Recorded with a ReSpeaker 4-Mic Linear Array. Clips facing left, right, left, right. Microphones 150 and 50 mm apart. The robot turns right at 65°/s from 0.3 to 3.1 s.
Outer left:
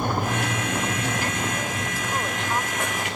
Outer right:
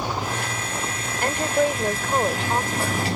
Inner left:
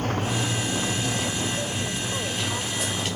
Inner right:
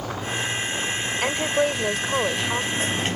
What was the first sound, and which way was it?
Running water, 55° left.